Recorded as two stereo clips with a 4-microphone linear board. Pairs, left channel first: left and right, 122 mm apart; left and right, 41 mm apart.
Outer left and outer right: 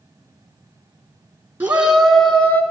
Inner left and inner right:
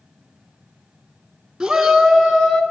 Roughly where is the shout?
Centre.